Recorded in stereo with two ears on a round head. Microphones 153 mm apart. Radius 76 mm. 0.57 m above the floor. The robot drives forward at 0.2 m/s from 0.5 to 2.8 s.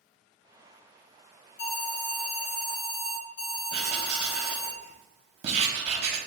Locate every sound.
1.6 s an alarm: 70° left (ahead or behind), 1.0 m
3.7 s writing: 40° right (ahead or behind), 1.0 m